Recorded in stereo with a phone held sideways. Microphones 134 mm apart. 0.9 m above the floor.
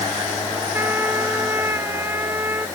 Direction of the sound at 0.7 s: 20° right (ahead or behind).